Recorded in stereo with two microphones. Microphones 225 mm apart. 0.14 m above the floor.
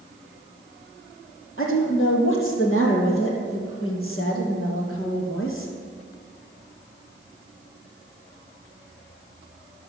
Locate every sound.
1.6 s a woman speaking: 65° left (ahead or behind), 4 m